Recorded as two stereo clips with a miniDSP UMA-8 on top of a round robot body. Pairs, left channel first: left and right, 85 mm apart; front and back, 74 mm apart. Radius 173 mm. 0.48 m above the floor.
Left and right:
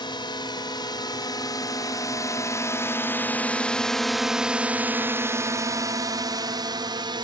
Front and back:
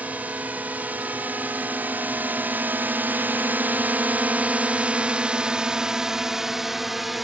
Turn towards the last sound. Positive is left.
turn(degrees=-90)